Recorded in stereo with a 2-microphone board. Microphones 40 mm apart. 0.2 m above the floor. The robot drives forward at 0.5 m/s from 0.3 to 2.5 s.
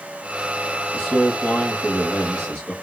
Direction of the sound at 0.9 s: 25° left (ahead or behind).